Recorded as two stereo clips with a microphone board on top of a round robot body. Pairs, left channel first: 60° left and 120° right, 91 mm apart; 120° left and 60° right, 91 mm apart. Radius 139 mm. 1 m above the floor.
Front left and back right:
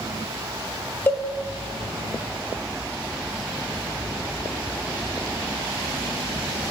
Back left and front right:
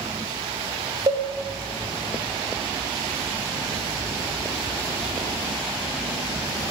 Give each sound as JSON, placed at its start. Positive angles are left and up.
{"t": 1.1, "sound": "a cowbell", "azimuth_deg": -10, "distance_m": 4.0}